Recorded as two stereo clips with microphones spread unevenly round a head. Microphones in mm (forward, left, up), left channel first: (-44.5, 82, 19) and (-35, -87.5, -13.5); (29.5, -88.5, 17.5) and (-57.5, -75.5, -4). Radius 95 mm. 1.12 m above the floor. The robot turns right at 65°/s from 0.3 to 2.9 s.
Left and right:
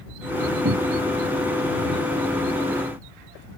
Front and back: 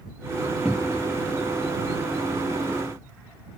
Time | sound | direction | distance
0.7 | a cupboard door | 95° right | ?